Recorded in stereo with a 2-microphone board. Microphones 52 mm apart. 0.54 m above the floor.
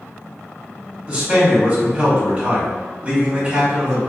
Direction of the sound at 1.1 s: 20° right (ahead or behind).